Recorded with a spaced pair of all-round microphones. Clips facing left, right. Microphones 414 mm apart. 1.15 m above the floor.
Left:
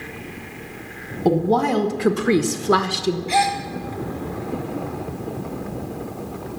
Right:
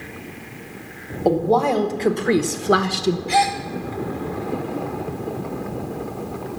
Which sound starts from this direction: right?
A gasp, at 3.3 s.